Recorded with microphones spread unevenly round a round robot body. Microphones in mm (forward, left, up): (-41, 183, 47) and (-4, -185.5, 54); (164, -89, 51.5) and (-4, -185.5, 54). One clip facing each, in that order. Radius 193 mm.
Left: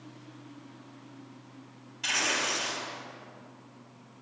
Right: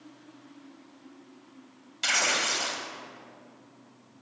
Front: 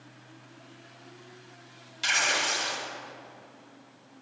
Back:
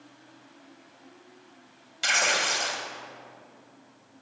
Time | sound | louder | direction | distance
2.0 | tearing paper | right 1 dB, back 3 dB | 110° right | 1.4 m